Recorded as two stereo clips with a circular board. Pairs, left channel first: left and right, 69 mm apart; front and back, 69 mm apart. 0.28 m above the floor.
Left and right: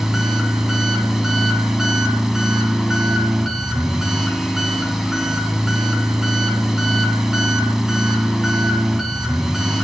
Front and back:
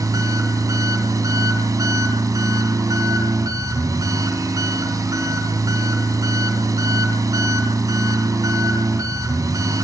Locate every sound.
0.0 s an engine running: 170° right, 2 m